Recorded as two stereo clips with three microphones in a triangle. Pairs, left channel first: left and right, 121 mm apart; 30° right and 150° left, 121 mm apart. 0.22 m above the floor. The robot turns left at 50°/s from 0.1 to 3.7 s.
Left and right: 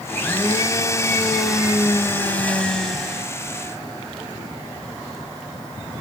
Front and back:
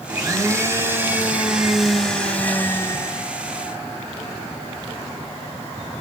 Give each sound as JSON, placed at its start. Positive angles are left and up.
{"t": 0.1, "sound": "a blender", "azimuth_deg": 145, "distance_m": 1.6}